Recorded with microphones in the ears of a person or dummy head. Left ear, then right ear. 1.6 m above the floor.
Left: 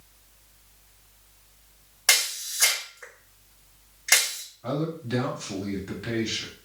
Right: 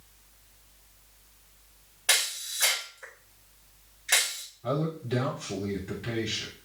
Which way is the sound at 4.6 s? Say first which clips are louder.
Even; 55° left (ahead or behind).